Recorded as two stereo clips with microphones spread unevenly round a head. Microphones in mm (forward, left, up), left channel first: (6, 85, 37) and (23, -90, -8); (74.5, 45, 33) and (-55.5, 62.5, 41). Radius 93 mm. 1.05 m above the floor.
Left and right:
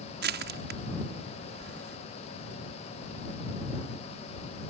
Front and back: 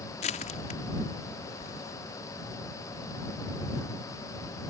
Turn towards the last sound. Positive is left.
turn(degrees=-55)